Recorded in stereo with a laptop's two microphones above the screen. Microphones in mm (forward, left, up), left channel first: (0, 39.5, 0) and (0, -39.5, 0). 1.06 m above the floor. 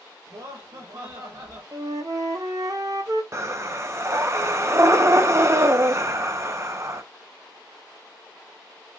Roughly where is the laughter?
Right.